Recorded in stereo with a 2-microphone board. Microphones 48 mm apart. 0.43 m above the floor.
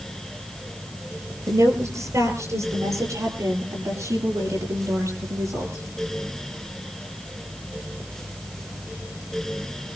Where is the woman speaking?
85° right, 10 m; by 5.8 s 80° right, 13 m.